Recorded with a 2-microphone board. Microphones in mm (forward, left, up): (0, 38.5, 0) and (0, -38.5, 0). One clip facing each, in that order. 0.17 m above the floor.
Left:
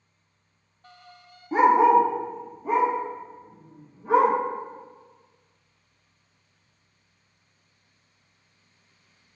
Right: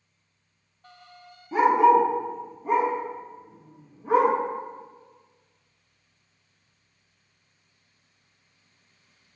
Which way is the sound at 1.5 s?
40° left (ahead or behind).